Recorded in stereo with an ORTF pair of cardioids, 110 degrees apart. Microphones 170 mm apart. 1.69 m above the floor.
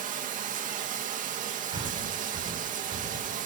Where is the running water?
55° right, 2 m.